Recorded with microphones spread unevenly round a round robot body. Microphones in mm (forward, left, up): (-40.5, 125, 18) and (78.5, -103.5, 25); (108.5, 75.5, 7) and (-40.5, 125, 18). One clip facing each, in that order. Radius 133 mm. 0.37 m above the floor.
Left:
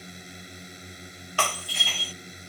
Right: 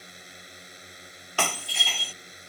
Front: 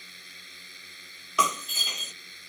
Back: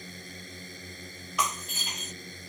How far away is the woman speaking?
I don't hear a woman speaking.